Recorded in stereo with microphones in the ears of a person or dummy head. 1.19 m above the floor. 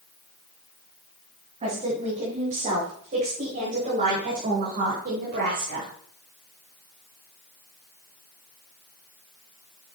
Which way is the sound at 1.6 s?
35° right (ahead or behind).